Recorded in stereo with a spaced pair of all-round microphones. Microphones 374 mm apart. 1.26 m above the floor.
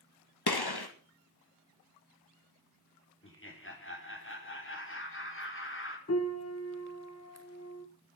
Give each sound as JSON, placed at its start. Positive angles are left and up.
{"t": 0.5, "sound": "a gunshot", "side_deg": 80, "distance_m": 1.8}
{"t": 3.2, "sound": "laughter", "side_deg": 35, "distance_m": 3.5}
{"t": 6.1, "sound": "a piano", "side_deg": 40, "distance_m": 1.2}